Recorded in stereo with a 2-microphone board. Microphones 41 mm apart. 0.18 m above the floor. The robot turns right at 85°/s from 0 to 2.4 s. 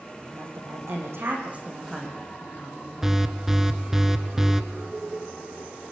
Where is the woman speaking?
150° right, 9 m; by 3.2 s 35° left, 9 m.